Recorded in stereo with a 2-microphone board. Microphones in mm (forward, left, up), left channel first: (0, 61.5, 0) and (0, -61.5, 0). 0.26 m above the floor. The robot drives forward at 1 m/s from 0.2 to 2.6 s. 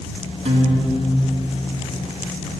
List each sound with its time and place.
0.5 s a guitar: 65° right (ahead or behind), 0.8 m; by 1.5 s 35° right (ahead or behind), 1.2 m